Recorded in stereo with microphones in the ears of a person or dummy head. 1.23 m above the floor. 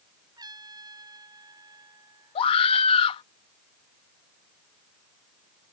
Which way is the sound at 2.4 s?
30° left (ahead or behind).